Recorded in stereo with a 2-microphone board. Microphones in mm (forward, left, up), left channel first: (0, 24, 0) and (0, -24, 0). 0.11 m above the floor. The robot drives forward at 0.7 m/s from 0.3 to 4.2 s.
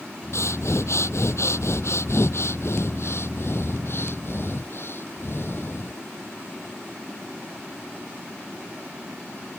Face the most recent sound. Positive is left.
turn(degrees=55)  # may be behind; listen again after turning